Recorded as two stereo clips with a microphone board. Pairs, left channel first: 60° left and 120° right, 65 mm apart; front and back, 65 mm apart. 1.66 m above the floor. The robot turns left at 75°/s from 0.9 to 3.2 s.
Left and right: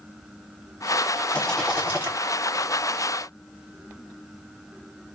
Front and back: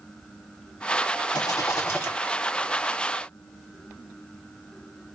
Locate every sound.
1.3 s a rattle: 5° right, 1.5 m; by 2.1 s 70° right, 1.5 m